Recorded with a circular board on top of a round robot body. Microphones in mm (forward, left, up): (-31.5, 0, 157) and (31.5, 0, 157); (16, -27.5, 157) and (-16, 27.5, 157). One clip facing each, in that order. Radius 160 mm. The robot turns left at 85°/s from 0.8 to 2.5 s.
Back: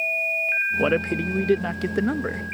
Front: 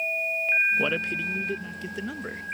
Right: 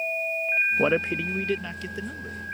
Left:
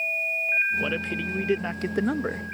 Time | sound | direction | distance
0.8 | a man speaking | 110° right | ?